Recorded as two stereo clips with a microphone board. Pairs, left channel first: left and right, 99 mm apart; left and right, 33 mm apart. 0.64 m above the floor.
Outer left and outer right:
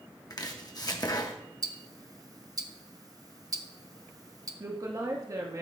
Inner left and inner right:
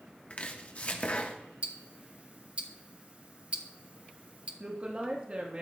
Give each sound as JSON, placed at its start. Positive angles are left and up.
{"t": 0.3, "sound": "chopping", "side_deg": 40, "distance_m": 1.0}
{"t": 1.6, "sound": "ticking", "side_deg": -35, "distance_m": 0.8}
{"t": 4.6, "sound": "a woman speaking", "side_deg": -35, "distance_m": 1.1}